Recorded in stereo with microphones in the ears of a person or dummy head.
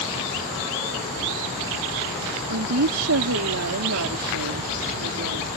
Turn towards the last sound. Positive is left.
turn(degrees=-75)  # may be behind; listen again after turning